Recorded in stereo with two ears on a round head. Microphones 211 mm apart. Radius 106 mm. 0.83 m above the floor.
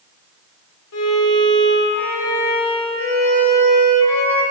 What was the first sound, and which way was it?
A violin, 75° left (ahead or behind).